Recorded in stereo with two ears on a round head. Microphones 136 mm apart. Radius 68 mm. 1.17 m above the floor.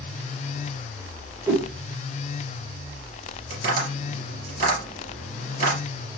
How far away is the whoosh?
About 1.6 m.